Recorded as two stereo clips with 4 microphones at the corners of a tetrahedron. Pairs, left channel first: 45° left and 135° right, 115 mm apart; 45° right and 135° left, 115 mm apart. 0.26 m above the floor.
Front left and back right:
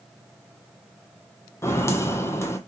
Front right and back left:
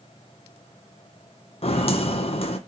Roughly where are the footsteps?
Ahead.